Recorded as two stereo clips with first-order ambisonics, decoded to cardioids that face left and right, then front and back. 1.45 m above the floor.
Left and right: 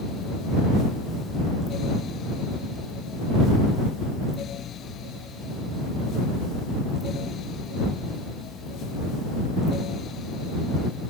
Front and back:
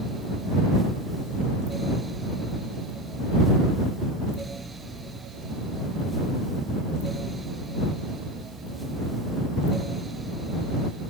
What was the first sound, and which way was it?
Only background noise.